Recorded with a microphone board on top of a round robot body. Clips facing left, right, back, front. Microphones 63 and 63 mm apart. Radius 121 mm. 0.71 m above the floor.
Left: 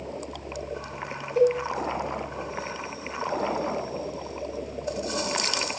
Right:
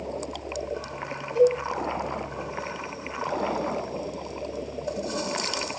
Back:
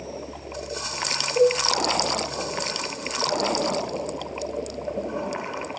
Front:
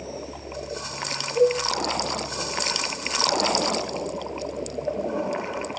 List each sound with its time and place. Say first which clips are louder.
1.4 s a cowbell: right 1 dB, back 1 dB; 70° right, 1.7 m